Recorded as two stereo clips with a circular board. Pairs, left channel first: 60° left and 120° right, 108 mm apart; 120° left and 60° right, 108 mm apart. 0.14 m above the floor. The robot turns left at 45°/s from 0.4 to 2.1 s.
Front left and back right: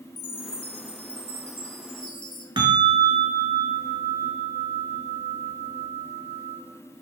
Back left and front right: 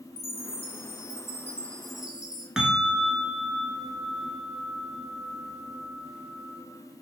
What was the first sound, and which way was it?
A chime, 100° left.